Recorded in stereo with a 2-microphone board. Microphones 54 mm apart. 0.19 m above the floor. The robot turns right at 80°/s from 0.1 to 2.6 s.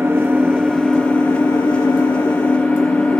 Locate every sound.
0.0 s an engine running: 50° right, 0.8 m; by 3.2 s 150° left, 0.8 m